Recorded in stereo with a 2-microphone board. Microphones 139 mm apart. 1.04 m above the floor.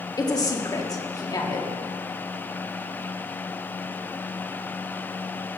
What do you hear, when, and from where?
0.2 s a woman speaking: 30° left (ahead or behind), 1.9 m